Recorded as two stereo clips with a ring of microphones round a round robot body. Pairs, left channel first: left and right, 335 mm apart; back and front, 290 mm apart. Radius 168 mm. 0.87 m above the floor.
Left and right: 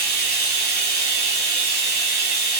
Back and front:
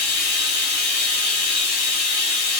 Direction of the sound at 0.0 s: 145° right.